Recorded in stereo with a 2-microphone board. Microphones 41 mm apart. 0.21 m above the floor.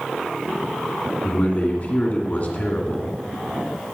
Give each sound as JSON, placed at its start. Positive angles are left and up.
{"t": 1.2, "sound": "a man speaking", "side_deg": 40, "distance_m": 1.9}